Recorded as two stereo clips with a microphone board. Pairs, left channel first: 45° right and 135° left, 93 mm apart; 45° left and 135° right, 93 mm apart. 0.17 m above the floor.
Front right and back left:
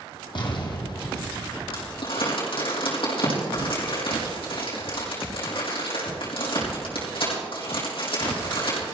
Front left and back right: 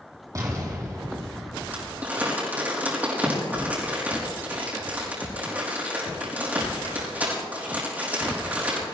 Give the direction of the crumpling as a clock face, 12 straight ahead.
2 o'clock.